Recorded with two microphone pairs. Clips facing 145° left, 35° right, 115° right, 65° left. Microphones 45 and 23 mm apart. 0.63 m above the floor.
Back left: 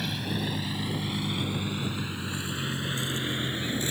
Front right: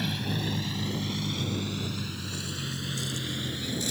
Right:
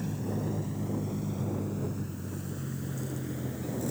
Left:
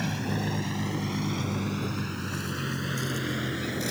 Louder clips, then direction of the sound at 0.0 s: Even, left 4 dB; 55° left.